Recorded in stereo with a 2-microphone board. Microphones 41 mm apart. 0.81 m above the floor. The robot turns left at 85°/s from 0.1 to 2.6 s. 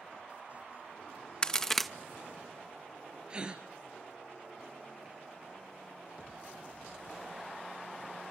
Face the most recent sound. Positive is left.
turn(degrees=-25)  # may be behind; listen again after turning